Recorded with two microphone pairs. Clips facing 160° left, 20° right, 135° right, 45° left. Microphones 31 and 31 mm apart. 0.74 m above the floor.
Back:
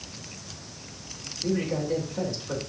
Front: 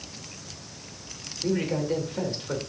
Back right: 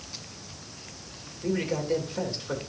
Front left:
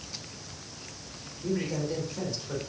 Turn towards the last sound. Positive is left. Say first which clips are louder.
# front 1 dB, back right 3 dB
turn(degrees=-75)